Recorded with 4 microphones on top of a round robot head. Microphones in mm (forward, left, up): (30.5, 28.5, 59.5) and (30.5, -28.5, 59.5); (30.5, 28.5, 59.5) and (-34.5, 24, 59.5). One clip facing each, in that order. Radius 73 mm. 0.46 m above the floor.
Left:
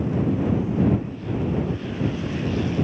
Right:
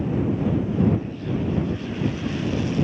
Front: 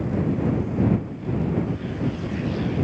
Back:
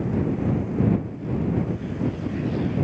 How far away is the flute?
I don't hear a flute.